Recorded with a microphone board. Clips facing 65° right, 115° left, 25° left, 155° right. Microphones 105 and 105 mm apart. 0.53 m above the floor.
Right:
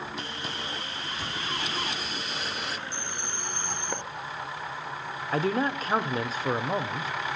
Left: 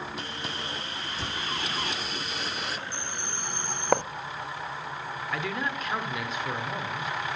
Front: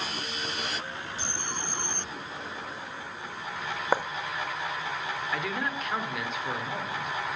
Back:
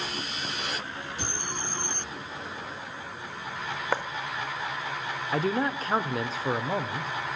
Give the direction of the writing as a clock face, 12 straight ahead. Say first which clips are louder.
Left 13 dB, front 3 dB; 9 o'clock.